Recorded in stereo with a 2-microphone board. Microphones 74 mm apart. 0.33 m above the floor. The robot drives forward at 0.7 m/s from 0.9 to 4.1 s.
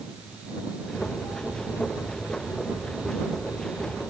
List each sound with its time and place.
Only background noise.